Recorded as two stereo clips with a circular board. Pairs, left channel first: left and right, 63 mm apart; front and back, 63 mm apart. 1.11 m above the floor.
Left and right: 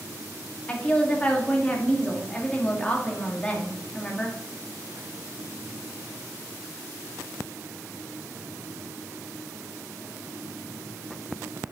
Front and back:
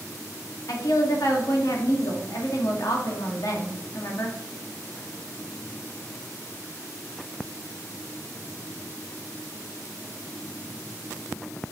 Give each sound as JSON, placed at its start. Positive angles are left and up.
{"t": 0.7, "sound": "a woman speaking", "azimuth_deg": 15, "distance_m": 1.6}